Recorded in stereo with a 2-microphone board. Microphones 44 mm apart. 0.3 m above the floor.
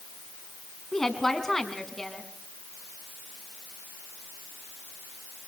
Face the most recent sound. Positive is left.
turn(degrees=10)  # may be behind; listen again after turning